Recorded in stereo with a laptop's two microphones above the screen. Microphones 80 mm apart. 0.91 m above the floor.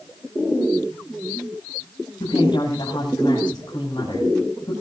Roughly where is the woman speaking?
Left.